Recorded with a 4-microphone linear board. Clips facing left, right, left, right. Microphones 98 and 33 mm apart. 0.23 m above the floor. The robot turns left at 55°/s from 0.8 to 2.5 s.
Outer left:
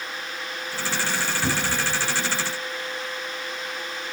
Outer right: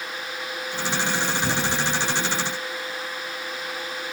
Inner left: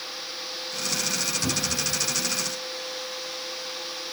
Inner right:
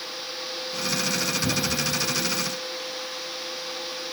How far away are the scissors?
No scissors in this recording.